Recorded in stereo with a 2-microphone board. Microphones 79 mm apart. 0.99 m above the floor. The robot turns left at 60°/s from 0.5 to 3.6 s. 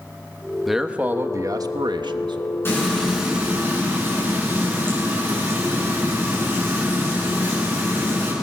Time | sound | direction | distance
0.7 | a man speaking | straight ahead | 1.1 m
2.6 | frying | 30° left | 9 m